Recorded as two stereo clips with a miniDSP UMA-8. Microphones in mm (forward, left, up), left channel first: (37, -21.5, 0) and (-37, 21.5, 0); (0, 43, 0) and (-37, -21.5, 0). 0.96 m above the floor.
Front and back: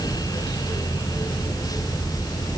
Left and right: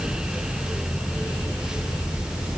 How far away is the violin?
No violin in this recording.